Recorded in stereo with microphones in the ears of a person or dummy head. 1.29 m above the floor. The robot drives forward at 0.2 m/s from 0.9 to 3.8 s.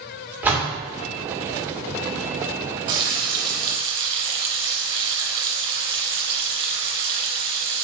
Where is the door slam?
10° right (ahead or behind), 1.7 m.